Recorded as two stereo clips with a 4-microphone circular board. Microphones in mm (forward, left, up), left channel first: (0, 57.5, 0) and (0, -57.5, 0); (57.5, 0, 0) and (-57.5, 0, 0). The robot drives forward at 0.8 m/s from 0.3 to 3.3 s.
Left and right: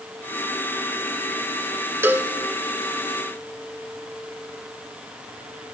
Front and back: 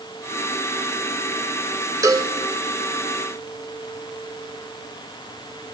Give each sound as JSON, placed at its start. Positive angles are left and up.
{"t": 2.0, "sound": "a cowbell", "azimuth_deg": -145, "distance_m": 0.5}